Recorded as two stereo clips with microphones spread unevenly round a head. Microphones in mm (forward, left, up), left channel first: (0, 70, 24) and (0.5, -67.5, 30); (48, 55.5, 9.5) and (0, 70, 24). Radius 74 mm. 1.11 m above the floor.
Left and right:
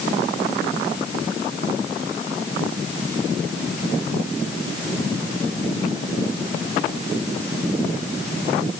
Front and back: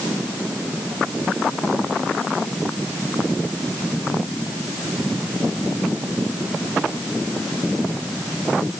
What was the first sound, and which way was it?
Only background noise.